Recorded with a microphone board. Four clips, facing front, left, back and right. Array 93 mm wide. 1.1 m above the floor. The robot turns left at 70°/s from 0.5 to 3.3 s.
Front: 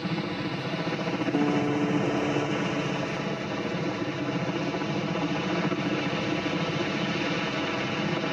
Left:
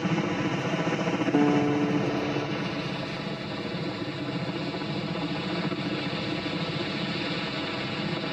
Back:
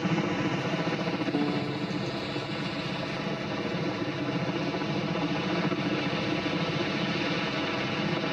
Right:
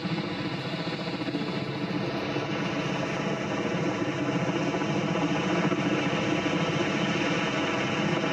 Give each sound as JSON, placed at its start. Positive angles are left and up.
{"t": 0.0, "sound": "a helicopter", "azimuth_deg": 125}
{"t": 1.3, "sound": "a guitar", "azimuth_deg": 85}